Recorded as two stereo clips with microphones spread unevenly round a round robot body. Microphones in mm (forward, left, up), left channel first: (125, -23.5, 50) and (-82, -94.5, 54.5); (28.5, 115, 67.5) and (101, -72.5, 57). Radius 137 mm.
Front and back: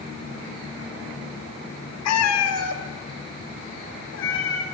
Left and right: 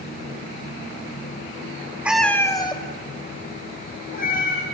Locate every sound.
2.0 s a cat meowing: 15° left, 1.3 m; by 4.7 s 65° left, 4 m